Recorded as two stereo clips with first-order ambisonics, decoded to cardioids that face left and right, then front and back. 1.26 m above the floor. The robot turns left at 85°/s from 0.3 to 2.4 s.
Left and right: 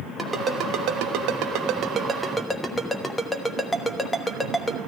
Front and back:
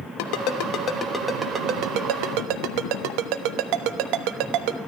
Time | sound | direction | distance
0.2 | a ringtone | 10° right | 1.1 m